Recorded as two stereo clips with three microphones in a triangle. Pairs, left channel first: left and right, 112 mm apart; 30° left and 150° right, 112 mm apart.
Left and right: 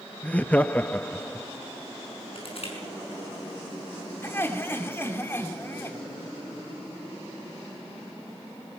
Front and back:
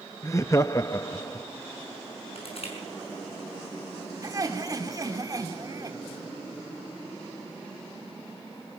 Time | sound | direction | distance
0.2 | laughter | 30° left | 0.6 m
2.4 | crushing | 60° left | 6 m
4.2 | laughter | 155° left | 2.5 m